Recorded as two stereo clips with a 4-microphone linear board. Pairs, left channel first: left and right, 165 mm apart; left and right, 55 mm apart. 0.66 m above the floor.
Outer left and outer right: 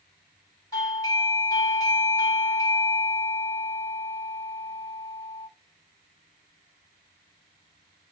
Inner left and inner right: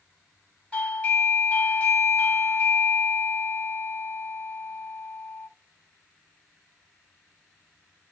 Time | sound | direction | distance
0.7 | a doorbell | 20° left (ahead or behind) | 1.4 m